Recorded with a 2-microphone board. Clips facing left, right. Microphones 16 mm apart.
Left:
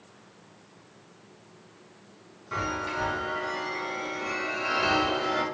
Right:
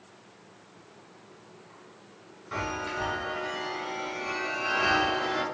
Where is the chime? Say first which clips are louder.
Left 2 dB; centre (ahead or behind), 0.9 m.